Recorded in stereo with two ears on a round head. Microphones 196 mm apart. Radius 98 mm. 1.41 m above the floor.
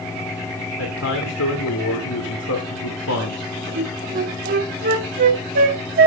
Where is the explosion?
I don't hear an explosion.